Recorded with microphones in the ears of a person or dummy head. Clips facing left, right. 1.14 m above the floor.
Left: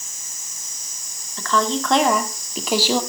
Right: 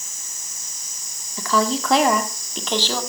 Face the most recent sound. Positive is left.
turn(degrees=15)  # may be behind; listen again after turning